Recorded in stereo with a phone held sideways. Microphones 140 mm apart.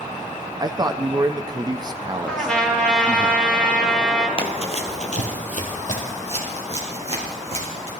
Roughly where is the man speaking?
Right.